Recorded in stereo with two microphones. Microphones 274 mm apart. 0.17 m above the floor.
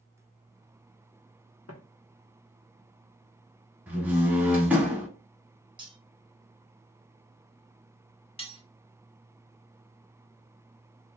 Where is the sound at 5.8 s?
20° right (ahead or behind), 0.9 m.